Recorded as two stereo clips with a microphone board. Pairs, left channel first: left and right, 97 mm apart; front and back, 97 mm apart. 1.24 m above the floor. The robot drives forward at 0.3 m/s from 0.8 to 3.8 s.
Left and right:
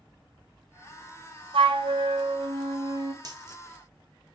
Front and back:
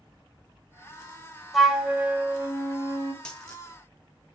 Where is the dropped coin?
75° right, 0.8 m; by 3.6 s 90° right, 0.8 m.